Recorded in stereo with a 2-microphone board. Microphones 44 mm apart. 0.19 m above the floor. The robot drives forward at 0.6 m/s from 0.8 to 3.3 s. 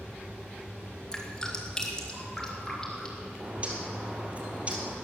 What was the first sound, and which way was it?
Dripping, 15° left (ahead or behind).